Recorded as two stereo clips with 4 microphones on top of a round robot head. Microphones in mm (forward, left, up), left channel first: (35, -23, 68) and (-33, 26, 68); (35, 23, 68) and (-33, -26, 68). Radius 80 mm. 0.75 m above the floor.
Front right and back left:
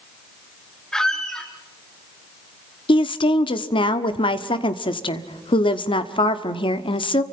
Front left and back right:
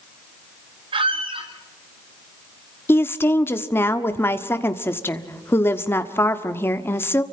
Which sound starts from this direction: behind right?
A squeak, at 0.9 s.